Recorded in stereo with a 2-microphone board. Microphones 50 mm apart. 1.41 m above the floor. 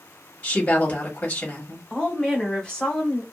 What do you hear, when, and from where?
0.4 s a woman speaking: 25° left (ahead or behind), 1.3 m
1.9 s a woman speaking: 15° left (ahead or behind), 1.5 m